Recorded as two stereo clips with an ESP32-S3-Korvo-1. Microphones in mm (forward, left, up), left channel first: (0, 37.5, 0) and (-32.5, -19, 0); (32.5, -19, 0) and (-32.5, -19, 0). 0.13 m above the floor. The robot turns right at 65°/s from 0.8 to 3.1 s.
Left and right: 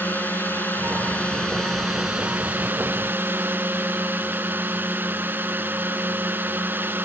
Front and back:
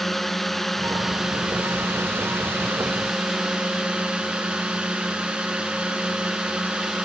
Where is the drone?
85° left; by 7.1 s 125° right.